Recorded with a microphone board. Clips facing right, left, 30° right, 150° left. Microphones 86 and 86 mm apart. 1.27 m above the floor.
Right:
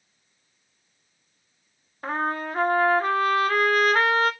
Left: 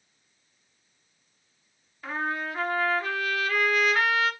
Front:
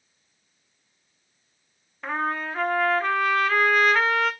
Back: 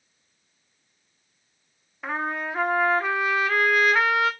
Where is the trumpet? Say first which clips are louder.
Right 4 dB, front 1 dB; 125° right, 0.6 m.